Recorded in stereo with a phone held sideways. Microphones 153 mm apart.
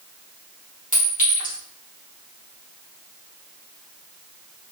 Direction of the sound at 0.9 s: 55° left (ahead or behind).